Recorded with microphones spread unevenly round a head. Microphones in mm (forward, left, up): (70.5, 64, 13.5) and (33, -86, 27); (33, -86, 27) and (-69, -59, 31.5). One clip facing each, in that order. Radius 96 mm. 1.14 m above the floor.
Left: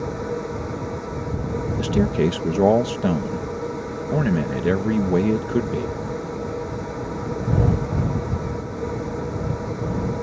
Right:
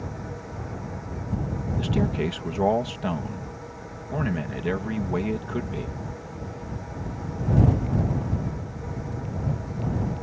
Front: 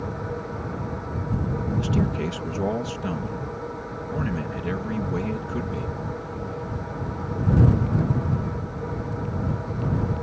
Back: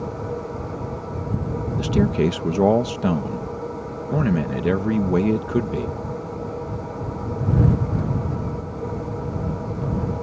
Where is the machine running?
95° left.